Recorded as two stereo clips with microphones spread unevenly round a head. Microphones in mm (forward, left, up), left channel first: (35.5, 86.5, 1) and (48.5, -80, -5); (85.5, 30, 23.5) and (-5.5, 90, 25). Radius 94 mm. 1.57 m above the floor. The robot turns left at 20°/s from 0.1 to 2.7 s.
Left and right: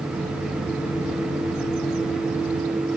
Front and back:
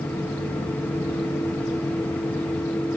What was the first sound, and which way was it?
Only background noise.